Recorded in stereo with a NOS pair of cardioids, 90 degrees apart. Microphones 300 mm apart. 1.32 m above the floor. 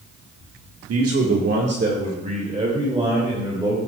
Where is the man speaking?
55° right, 1.6 m; by 3.9 s 10° right, 3.5 m.